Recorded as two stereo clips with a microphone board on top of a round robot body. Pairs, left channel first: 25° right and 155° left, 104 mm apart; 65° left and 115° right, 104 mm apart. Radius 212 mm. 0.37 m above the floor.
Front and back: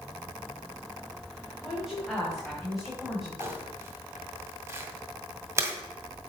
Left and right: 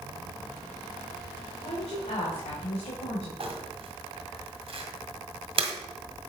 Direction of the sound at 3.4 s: 140° right.